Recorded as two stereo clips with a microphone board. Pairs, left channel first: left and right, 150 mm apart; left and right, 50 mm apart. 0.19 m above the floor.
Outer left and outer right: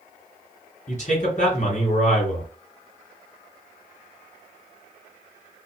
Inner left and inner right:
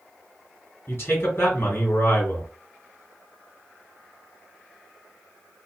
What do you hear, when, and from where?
0.9 s a man speaking: 50° left (ahead or behind), 3 m